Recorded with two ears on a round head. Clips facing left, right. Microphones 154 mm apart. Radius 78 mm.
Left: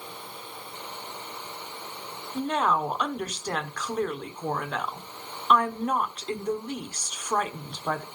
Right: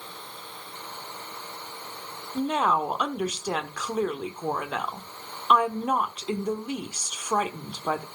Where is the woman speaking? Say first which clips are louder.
Right 1 dB; 5° right (ahead or behind), 1.0 m.